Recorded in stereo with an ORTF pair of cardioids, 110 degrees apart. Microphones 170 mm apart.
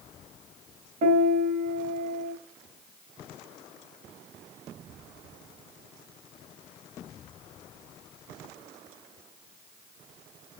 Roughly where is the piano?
Ahead right.